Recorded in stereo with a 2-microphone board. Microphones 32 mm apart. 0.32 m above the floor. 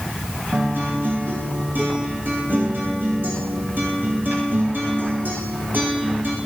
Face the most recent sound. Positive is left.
turn(degrees=-75)  # may be behind; listen again after turning